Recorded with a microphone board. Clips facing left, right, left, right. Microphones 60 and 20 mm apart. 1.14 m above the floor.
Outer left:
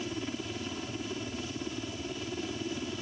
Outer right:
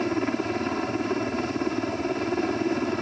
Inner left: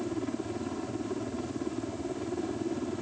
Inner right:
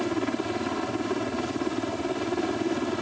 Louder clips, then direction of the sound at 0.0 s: Outer right 11 dB, inner right 6 dB; 55° right (ahead or behind).